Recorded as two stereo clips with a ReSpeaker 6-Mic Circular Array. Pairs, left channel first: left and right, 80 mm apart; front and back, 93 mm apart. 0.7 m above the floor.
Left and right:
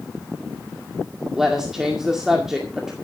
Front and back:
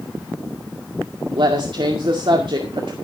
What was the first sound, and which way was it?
A woman speaking, 175° right.